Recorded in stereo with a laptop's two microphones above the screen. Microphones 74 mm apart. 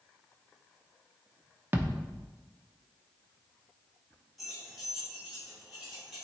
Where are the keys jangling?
Centre (ahead or behind), 3 m.